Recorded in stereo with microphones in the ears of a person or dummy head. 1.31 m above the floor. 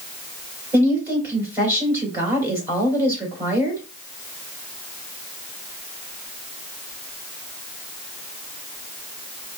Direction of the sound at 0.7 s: 15° right (ahead or behind).